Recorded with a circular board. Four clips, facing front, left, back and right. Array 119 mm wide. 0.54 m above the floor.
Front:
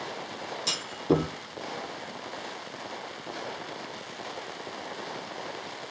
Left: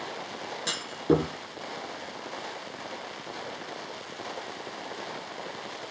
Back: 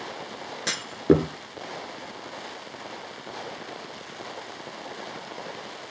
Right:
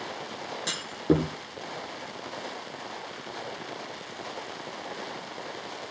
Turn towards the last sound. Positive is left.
turn(degrees=180)